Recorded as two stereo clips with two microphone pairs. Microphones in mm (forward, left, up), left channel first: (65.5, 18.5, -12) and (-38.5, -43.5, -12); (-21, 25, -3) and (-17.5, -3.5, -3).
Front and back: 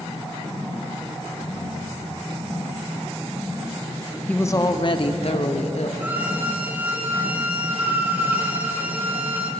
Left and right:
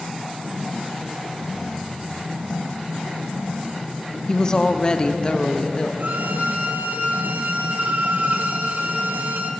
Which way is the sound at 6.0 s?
75° right.